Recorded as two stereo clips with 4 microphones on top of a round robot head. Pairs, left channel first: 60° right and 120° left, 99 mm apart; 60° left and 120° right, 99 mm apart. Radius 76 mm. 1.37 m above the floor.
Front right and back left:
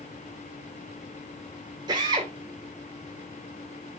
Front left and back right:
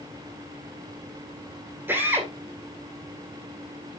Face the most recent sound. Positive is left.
turn(degrees=170)